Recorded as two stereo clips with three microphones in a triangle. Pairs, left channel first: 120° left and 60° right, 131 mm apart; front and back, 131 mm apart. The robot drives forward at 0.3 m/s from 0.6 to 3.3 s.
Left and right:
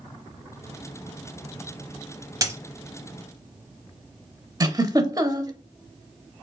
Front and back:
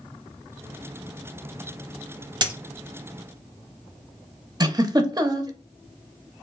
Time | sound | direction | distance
2.4 | a dropped coin | 125° right | 0.7 m
4.6 | a giggle | 120° right | 0.5 m